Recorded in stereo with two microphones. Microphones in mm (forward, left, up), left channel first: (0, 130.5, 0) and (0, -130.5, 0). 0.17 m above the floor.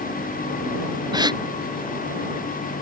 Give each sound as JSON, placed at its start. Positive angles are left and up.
{"t": 1.1, "sound": "a gasp", "side_deg": -15}